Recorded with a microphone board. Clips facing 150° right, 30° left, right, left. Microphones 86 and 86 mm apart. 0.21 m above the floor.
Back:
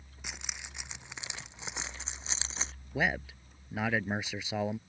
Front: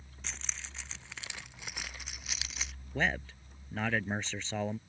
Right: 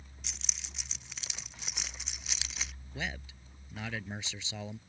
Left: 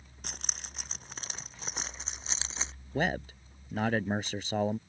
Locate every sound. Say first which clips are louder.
0.2 s keys jangling: back 1 dB, left 6 dB; 130° left; by 2.7 s 150° left
2.9 s a man speaking: back 1 dB, left 10 dB; 130° left